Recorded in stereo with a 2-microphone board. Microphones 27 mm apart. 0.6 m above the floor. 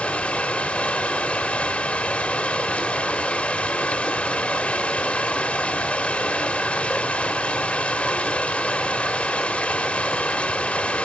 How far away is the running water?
About 1.0 m.